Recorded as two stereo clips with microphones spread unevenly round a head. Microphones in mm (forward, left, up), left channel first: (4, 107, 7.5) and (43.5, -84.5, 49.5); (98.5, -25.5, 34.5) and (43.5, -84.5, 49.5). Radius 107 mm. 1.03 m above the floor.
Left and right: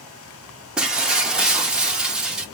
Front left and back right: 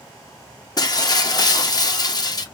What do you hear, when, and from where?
0.8 s breaking glass: 5° left, 0.7 m